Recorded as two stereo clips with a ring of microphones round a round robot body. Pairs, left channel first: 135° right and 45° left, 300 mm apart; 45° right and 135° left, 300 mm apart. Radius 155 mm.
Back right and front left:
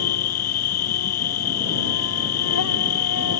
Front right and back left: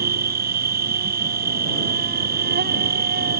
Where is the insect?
165° right.